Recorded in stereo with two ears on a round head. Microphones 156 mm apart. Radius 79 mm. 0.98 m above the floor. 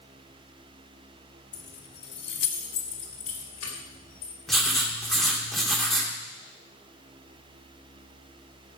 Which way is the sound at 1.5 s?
45° left (ahead or behind).